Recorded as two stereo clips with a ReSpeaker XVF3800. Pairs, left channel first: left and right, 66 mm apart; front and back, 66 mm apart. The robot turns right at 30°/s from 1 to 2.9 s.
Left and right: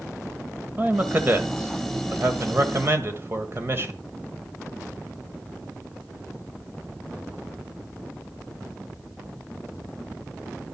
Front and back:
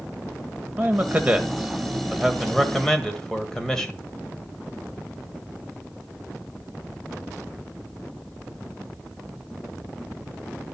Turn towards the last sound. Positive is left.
turn(degrees=-75)